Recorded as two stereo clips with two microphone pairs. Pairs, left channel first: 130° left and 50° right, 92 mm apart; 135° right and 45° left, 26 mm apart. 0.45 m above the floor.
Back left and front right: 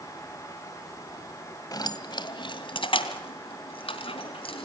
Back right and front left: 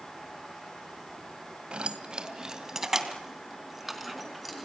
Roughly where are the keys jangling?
Left.